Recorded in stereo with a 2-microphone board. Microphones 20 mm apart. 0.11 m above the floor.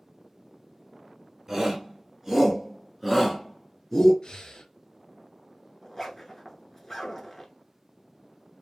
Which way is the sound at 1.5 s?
20° right (ahead or behind).